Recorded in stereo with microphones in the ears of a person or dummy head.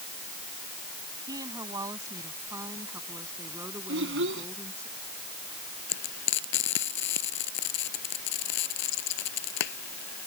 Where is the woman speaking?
25° right (ahead or behind); by 4.9 s 20° right (ahead or behind).